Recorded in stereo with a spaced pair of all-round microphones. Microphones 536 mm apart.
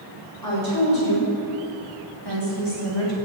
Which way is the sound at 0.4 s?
40° left (ahead or behind).